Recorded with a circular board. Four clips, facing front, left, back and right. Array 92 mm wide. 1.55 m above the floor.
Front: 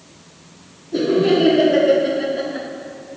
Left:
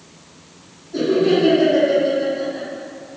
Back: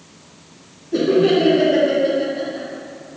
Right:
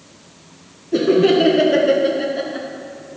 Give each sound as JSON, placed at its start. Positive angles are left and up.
{"t": 0.9, "sound": "laughter", "azimuth_deg": -105, "distance_m": 1.5}